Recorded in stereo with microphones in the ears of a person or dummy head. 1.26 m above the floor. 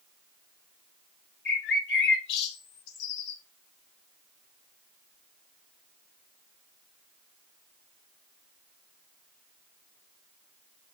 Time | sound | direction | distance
1.4 | a bird | 60° left (ahead or behind) | 1.8 m